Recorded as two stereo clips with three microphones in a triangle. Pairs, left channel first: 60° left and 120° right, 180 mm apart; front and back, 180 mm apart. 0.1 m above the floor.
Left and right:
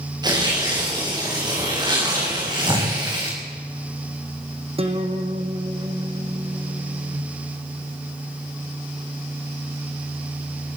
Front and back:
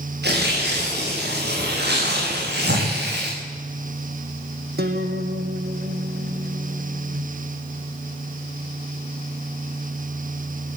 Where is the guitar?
175° right, 2 m.